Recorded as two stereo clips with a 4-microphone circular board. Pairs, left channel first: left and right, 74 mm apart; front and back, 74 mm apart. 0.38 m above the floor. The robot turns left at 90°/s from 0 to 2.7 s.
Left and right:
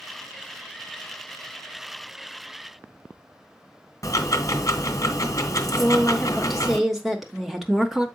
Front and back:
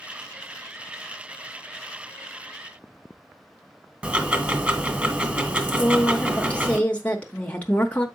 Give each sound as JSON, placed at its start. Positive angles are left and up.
{"t": 4.0, "sound": "ticking", "azimuth_deg": 110, "distance_m": 1.2}
{"t": 5.8, "sound": "a woman speaking", "azimuth_deg": -5, "distance_m": 0.8}